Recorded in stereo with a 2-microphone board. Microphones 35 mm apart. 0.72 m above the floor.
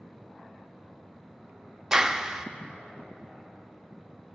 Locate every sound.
1.9 s a clap: 15° right (ahead or behind), 0.6 m